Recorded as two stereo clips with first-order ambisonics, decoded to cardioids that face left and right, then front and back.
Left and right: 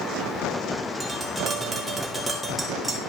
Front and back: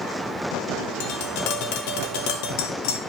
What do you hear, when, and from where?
1.0 s tapping: straight ahead, 2.5 m